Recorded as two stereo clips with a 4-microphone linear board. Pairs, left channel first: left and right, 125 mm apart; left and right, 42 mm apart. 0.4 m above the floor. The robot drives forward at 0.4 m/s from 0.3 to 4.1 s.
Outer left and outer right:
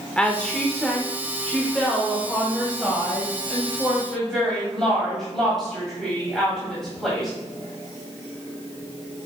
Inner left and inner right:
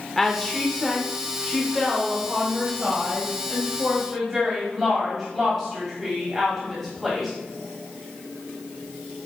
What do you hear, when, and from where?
0.2 s a woman speaking: 10° left (ahead or behind), 0.8 m; by 7.3 s 5° left (ahead or behind), 1.9 m